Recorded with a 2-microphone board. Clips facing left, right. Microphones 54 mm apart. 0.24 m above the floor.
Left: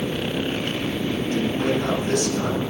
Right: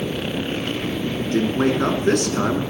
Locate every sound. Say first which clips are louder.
1.2 s a man speaking: right 5 dB; 60° right (ahead or behind), 3 m